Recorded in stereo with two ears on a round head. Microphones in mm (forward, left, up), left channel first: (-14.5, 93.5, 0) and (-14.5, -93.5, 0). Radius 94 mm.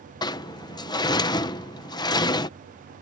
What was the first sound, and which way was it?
A sliding door, 20° left (ahead or behind).